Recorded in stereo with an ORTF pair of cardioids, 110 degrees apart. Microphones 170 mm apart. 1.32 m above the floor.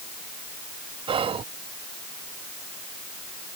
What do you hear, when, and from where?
1.1 s whispering: 35° right